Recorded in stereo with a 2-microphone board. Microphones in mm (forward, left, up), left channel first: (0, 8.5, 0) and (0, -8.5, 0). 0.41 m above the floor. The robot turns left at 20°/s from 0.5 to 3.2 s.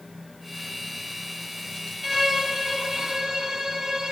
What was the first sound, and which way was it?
A violin, centre (ahead or behind).